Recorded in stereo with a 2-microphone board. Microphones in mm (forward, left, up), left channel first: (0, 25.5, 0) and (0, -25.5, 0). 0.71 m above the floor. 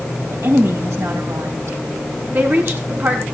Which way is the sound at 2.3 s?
45° right (ahead or behind).